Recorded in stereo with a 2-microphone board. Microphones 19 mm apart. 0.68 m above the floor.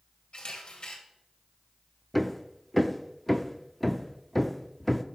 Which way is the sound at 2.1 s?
10° left (ahead or behind).